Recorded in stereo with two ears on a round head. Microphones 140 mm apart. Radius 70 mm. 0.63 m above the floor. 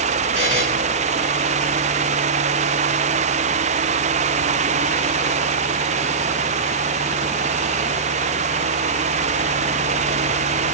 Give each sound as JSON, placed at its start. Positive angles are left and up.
{"t": 0.3, "sound": "a buzzer", "side_deg": -80, "distance_m": 6.0}